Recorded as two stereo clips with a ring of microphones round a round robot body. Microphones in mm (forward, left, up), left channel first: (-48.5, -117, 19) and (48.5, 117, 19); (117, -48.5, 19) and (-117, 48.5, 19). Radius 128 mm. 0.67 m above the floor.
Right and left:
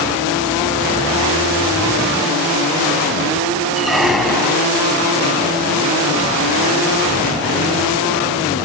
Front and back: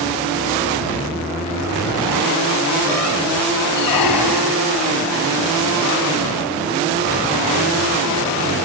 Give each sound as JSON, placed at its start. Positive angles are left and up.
{"t": 3.8, "sound": "a squeak", "azimuth_deg": -25}